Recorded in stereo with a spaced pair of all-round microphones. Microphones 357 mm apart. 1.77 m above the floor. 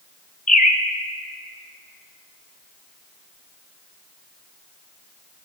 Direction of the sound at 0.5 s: 20° left (ahead or behind).